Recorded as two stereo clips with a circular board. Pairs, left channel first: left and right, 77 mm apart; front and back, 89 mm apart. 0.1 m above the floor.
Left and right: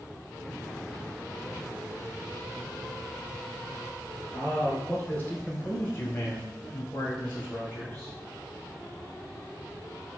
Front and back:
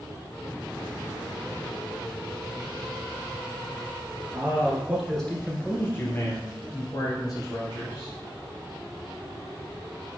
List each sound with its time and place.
4.3 s a man speaking: 145° left, 1.2 m; by 8.1 s 30° left, 2.5 m